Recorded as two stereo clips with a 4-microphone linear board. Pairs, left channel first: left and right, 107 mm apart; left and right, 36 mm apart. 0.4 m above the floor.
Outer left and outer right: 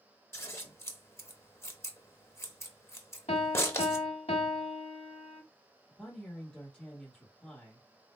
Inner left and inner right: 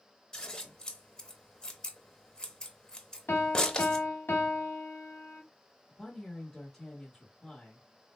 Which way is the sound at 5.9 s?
5° left (ahead or behind).